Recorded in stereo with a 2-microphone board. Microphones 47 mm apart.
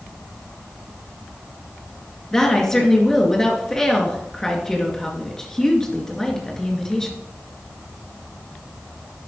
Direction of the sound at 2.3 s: 10° left (ahead or behind).